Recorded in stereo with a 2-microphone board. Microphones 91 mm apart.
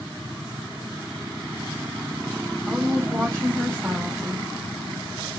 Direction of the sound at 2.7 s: 30° right (ahead or behind).